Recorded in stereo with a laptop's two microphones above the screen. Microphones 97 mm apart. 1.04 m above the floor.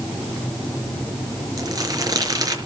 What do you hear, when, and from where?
1.6 s crumpling: 40° right (ahead or behind), 5 m